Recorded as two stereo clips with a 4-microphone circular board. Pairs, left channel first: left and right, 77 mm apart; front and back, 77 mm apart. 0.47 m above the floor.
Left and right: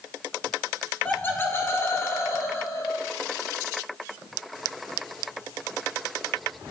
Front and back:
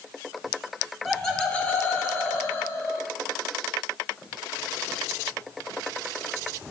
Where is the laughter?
90° left, 1.1 m; by 3.1 s 50° left, 2.5 m.